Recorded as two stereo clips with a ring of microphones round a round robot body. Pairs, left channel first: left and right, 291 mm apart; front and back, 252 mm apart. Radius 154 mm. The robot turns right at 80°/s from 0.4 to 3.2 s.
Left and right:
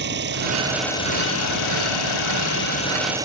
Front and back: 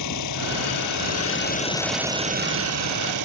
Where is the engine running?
35° right; by 3.3 s 170° right.